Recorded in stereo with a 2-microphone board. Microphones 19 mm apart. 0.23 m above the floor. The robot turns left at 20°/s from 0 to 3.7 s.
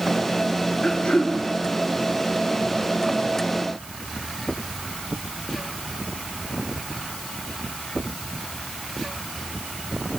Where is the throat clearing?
70° left (ahead or behind), 1.1 m; by 1.4 s 65° left (ahead or behind), 1.1 m.